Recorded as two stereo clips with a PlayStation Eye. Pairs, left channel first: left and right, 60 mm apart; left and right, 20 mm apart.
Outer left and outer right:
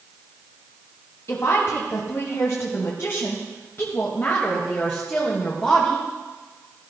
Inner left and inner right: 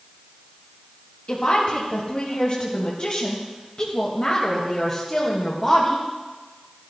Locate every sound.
1.3 s a woman speaking: 55° left (ahead or behind), 2.5 m; by 6.1 s 20° left (ahead or behind), 2 m